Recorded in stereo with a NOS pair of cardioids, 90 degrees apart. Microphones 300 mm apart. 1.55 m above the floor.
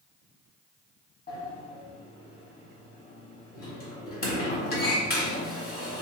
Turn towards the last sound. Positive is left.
turn(degrees=30)